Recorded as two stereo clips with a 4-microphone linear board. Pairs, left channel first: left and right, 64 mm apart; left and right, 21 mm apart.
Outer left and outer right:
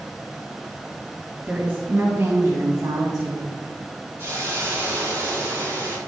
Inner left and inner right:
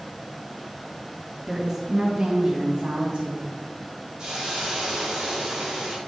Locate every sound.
1.5 s a woman speaking: 20° right (ahead or behind), 2 m; by 3.6 s 75° right (ahead or behind), 2 m
4.2 s a hiss: 40° right (ahead or behind), 3.5 m